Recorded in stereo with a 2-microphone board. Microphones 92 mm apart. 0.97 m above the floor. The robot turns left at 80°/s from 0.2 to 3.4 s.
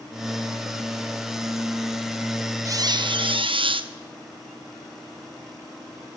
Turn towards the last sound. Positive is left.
turn(degrees=-95)